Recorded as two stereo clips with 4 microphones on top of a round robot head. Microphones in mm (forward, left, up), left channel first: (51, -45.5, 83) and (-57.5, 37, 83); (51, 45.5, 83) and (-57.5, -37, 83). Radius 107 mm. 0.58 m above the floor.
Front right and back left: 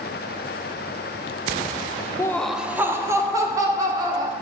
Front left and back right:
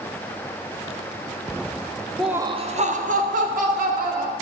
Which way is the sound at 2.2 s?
35° right.